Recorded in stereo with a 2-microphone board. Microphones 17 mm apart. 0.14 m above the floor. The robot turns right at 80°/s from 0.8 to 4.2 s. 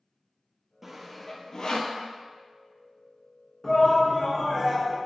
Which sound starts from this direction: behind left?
A shout, at 3.6 s.